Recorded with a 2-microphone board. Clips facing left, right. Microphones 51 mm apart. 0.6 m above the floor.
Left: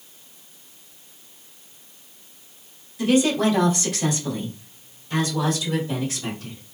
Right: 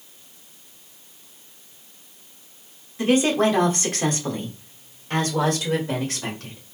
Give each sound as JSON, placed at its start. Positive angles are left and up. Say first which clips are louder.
{"t": 3.0, "sound": "a woman speaking", "louder": "even", "side_deg": -40, "distance_m": 1.8}